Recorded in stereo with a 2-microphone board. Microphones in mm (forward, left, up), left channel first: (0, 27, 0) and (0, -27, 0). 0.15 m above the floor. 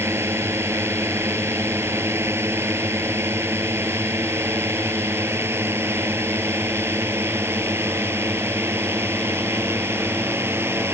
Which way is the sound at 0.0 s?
55° right (ahead or behind).